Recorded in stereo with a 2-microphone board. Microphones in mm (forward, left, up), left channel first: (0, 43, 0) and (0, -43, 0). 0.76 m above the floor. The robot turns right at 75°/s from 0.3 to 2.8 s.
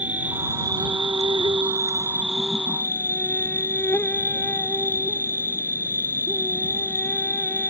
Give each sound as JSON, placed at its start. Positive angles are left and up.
{"t": 0.0, "sound": "an insect", "azimuth_deg": -160}